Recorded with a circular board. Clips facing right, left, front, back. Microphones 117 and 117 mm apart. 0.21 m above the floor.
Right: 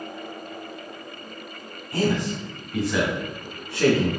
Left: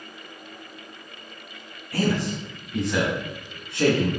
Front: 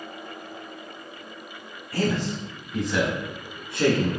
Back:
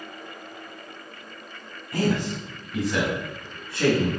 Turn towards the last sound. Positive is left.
turn(degrees=45)